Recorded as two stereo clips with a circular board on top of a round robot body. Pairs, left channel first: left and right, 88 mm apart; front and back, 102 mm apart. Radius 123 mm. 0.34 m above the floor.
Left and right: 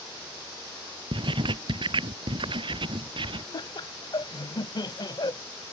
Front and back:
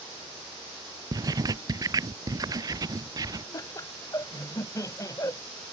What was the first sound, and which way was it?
Writing, 125° right.